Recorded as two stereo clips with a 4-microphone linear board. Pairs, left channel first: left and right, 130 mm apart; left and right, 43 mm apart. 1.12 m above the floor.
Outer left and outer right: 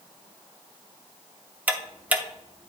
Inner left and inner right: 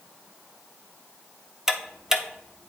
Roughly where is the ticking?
Centre.